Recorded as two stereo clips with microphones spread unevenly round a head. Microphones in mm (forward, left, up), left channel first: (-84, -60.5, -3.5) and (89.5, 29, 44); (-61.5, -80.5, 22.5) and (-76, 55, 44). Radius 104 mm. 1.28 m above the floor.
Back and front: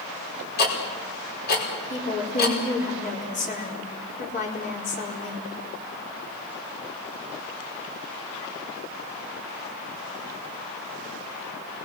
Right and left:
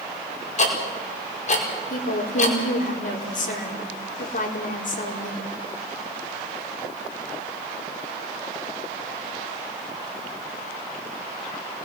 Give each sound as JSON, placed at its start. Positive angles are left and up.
{"t": 0.6, "sound": "ticking", "azimuth_deg": -115, "distance_m": 5.0}
{"t": 1.9, "sound": "a woman speaking", "azimuth_deg": -100, "distance_m": 4.5}